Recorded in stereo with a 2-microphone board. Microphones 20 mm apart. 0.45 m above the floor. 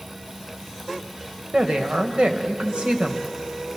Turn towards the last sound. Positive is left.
turn(degrees=-60)  # may be behind; listen again after turning